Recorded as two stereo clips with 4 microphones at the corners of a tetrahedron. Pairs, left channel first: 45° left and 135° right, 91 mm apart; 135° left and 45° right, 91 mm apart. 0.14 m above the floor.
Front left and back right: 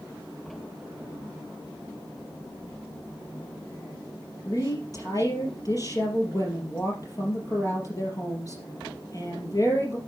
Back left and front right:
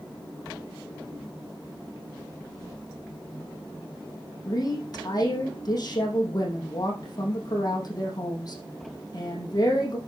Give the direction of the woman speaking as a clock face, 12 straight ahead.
9 o'clock.